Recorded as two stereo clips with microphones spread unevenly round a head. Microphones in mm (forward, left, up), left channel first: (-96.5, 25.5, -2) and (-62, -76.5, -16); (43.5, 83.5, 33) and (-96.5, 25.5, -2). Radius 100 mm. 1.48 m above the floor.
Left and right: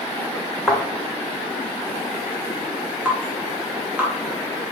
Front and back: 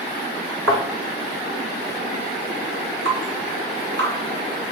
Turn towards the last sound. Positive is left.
turn(degrees=-150)